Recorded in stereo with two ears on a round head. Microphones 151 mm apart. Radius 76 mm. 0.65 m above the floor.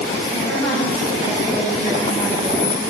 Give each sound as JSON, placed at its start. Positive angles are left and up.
{"t": 0.3, "sound": "a woman speaking", "side_deg": 45, "distance_m": 5.0}